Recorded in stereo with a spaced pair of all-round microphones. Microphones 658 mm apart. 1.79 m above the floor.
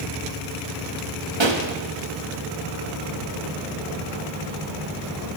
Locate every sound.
1.4 s a pop: 40° right (ahead or behind), 1.4 m